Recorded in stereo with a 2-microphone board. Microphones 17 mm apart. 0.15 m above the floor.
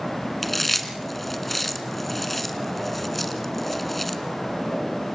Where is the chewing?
5° left (ahead or behind), 1.7 m.